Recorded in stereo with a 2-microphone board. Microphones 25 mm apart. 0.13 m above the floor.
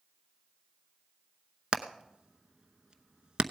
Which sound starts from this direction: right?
Hammering, at 1.7 s.